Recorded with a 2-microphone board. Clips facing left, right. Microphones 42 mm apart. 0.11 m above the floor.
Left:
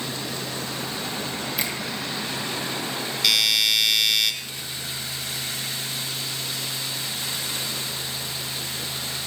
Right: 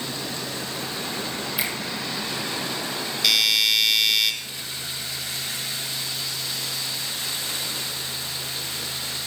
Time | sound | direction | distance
1.6 | a finger snap | 10° right (ahead or behind) | 4 m
3.2 | a doorbell | centre (ahead or behind) | 1.9 m